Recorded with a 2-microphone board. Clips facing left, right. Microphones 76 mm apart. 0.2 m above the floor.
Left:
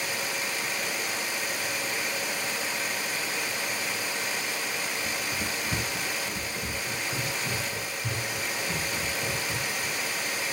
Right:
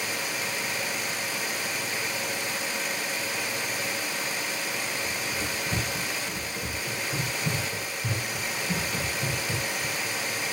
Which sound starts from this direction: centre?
Running footsteps, at 5.0 s.